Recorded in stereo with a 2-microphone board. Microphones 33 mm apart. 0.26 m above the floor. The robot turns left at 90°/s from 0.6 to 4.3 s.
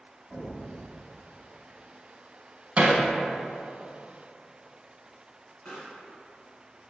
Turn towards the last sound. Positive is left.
turn(degrees=50)  # may be behind; listen again after turning